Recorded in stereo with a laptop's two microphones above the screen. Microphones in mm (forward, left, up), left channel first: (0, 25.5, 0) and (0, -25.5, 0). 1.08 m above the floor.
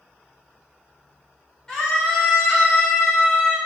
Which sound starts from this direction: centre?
A scream, at 1.7 s.